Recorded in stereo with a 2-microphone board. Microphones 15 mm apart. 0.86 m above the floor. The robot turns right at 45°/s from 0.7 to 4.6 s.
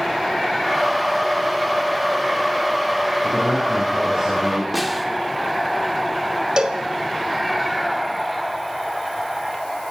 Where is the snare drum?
5° right (ahead or behind), 1.6 m.